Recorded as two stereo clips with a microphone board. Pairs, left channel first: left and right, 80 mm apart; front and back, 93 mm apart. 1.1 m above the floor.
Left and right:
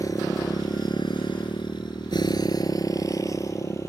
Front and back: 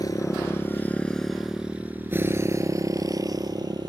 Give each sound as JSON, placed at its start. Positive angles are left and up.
{"t": 0.0, "sound": "a motorcycle", "azimuth_deg": 45}